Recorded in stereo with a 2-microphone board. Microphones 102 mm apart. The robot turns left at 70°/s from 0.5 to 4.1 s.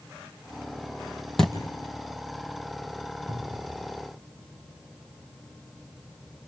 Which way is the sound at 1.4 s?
5° left (ahead or behind).